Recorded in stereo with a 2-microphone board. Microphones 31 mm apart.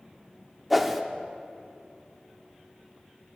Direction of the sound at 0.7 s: 5° right (ahead or behind).